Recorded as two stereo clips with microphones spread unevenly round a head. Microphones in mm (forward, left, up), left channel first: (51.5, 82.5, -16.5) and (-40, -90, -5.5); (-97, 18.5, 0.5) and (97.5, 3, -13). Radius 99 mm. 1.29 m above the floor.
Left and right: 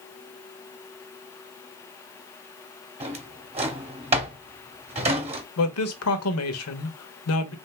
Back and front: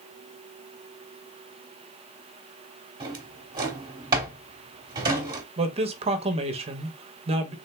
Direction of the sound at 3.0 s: 70° right.